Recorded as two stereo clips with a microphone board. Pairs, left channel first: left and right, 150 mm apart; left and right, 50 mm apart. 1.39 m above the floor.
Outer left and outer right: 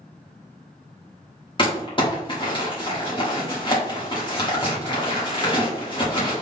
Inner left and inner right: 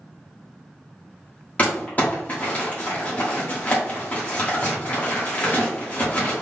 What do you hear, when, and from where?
1.6 s crumpling: 35° left (ahead or behind), 1.4 m